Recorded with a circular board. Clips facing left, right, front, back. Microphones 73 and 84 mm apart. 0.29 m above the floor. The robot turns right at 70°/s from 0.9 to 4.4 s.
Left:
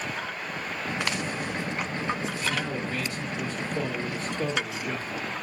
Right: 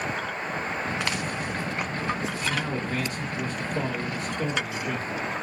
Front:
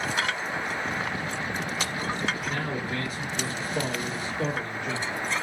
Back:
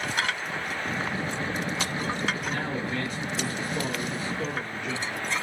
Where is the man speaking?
125° right, 1.4 m; by 5.2 s 10° left, 1.4 m.